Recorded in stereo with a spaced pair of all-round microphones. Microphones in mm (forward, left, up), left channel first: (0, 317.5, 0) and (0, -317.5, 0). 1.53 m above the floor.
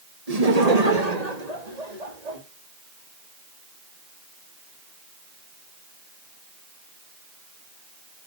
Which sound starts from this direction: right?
Laughter, at 0.3 s.